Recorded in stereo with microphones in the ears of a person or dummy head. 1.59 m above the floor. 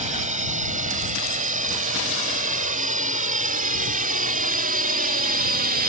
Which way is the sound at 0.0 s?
40° right (ahead or behind).